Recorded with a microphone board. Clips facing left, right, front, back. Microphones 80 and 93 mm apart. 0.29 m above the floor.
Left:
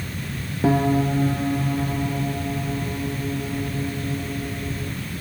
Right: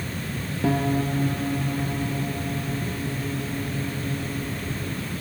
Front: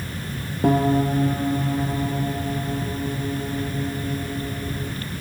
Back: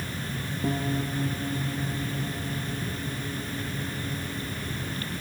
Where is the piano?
20° left.